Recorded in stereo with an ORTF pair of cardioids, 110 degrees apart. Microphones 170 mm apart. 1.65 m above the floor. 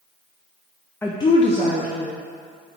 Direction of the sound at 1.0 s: 10° left.